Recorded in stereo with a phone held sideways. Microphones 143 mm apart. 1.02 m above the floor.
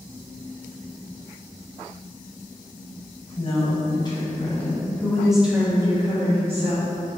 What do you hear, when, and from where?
3.4 s a woman speaking: 40° left (ahead or behind), 1.4 m; by 6.9 s 50° right (ahead or behind), 1.0 m